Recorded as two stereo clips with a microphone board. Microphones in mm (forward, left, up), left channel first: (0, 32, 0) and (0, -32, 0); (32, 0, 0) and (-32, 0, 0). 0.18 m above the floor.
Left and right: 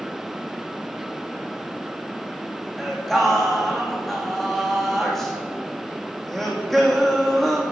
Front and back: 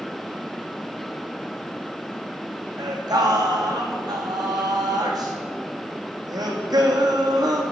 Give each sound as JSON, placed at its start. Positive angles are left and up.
{"t": 2.8, "sound": "singing", "azimuth_deg": 175, "distance_m": 1.4}